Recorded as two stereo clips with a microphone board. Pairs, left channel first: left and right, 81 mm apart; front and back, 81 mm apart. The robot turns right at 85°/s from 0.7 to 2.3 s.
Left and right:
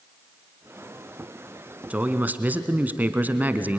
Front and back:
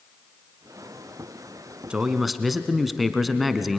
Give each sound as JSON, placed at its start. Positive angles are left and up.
{"t": 1.9, "sound": "a man speaking", "azimuth_deg": -125, "distance_m": 1.1}